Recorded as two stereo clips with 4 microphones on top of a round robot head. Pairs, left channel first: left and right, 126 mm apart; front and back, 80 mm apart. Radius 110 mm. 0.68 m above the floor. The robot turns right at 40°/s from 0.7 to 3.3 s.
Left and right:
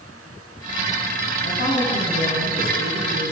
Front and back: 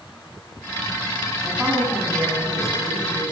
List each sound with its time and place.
1.4 s a woman speaking: 85° left, 10 m; by 3.3 s 160° left, 10 m